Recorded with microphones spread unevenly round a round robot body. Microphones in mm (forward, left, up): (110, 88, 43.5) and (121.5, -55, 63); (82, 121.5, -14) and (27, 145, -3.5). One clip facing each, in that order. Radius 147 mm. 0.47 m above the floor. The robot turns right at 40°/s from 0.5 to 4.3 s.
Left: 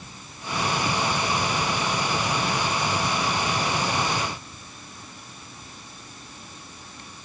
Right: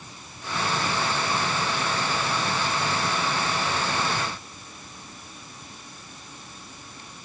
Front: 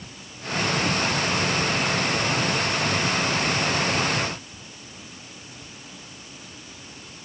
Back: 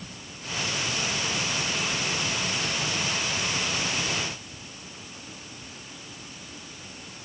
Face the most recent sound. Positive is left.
No sound to turn to.